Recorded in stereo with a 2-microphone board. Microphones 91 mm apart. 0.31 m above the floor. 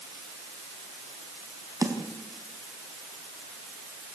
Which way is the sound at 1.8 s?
40° right (ahead or behind).